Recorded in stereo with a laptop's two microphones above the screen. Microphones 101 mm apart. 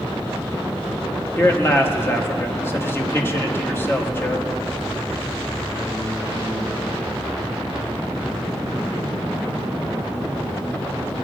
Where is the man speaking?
25° left (ahead or behind), 1.7 m.